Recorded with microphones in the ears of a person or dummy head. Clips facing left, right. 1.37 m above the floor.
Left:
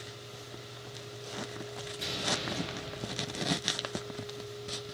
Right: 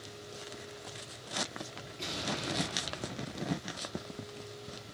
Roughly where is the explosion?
Centre.